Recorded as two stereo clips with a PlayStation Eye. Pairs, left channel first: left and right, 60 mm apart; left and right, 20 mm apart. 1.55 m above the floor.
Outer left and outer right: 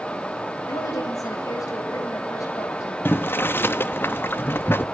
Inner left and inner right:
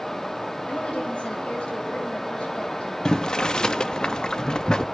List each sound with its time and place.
0.7 s a woman speaking: 80° left, 9.5 m; by 3.0 s 65° left (ahead or behind), 11 m
3.0 s boiling: 40° left (ahead or behind), 1.1 m